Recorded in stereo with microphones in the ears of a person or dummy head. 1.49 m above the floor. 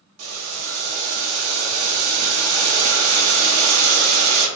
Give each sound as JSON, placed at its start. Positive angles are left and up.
{"t": 0.2, "sound": "boiling", "side_deg": -85, "distance_m": 0.7}